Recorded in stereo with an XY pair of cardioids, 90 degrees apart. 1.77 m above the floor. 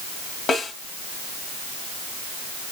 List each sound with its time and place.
0.5 s a snare drum: 60° left, 2.5 m